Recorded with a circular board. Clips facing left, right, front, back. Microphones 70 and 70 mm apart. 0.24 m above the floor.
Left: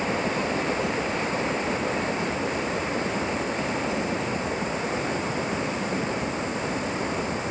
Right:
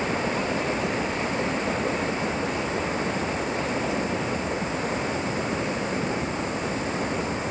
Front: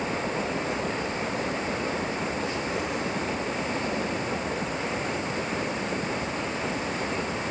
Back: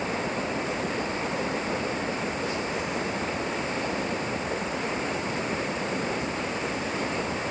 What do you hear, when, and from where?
Only background noise.